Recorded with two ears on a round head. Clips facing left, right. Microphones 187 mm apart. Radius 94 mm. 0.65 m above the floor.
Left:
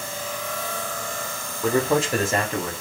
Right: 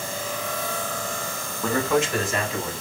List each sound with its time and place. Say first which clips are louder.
1.6 s a man speaking: left 2 dB; 5° left (ahead or behind), 0.6 m; by 2.7 s 55° left (ahead or behind), 1.3 m